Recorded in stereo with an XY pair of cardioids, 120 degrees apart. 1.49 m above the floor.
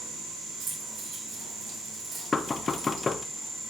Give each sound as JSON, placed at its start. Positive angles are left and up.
{"t": 0.6, "sound": "keys jangling", "azimuth_deg": -50, "distance_m": 4.5}
{"t": 2.3, "sound": "knocking", "azimuth_deg": 25, "distance_m": 0.5}